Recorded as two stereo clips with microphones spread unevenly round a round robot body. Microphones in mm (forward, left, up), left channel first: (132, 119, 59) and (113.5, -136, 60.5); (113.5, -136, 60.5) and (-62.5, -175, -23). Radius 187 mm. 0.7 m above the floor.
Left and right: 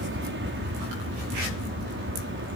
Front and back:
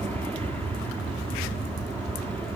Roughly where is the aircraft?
Right.